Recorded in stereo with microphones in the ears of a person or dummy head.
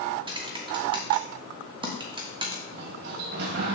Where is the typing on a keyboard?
20° right (ahead or behind), 1.1 m.